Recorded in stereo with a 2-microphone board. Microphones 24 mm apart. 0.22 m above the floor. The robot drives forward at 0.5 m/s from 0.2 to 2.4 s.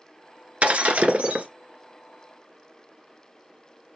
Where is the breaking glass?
65° right (ahead or behind), 1.4 m; by 1.5 s 70° right (ahead or behind), 1.3 m.